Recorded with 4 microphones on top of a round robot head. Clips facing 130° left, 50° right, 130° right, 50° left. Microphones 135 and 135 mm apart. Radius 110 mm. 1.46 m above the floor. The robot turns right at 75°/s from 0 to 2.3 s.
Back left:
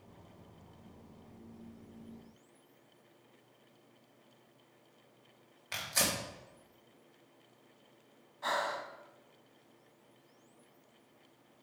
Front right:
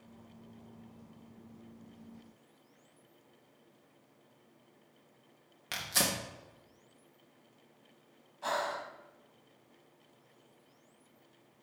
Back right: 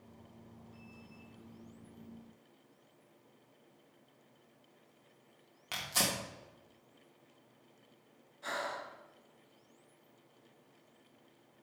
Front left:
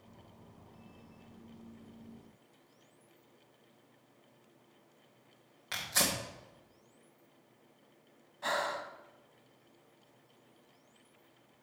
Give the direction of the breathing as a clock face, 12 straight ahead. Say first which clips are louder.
Front right 1 dB, front left 5 dB; 11 o'clock.